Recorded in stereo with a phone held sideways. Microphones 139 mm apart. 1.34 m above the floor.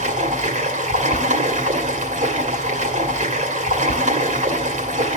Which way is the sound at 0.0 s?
60° right (ahead or behind).